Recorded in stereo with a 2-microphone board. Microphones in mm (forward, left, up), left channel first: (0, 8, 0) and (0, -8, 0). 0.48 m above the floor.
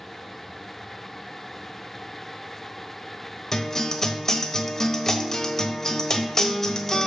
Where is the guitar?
25° left (ahead or behind), 1.2 m.